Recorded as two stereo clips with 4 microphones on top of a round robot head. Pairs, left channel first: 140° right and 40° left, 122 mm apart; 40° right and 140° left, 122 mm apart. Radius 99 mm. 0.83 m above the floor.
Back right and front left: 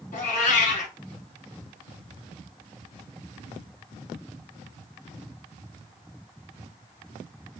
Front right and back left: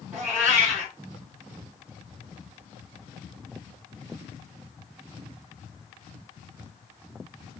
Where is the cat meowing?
150° right, 4 m.